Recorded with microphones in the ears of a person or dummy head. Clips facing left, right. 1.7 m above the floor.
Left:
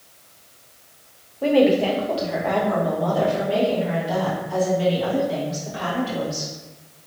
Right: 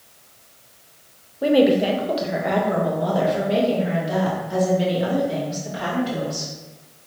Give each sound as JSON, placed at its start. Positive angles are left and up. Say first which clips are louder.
{"t": 1.4, "sound": "a woman speaking", "louder": "right 1 dB", "side_deg": -10, "distance_m": 0.7}